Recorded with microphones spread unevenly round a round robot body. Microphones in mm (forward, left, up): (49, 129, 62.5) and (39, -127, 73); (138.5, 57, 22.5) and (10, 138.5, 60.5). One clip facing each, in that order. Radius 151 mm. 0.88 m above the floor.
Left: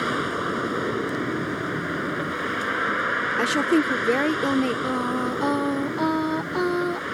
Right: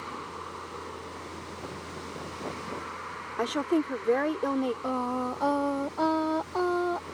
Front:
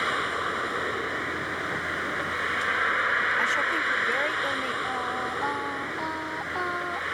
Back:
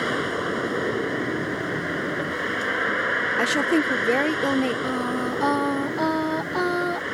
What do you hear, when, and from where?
0.0 s a vehicle: 105° left
3.4 s a woman speaking: 145° left
4.8 s singing: 155° left